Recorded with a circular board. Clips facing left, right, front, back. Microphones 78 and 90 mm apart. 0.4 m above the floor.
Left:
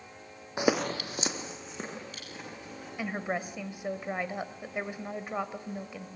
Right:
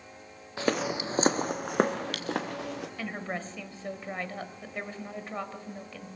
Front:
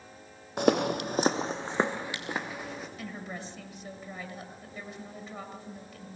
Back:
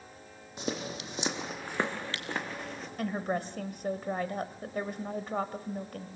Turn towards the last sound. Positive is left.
turn(degrees=160)